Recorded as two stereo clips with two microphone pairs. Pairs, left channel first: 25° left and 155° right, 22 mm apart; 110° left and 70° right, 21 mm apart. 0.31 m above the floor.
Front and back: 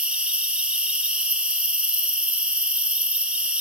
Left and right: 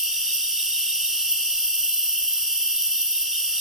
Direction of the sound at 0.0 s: 125° right.